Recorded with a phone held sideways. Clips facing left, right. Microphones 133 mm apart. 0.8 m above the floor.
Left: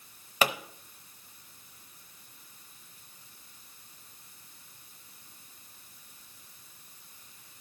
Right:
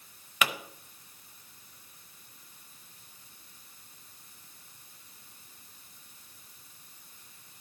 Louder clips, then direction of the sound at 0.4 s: Left 3 dB; 30° left (ahead or behind).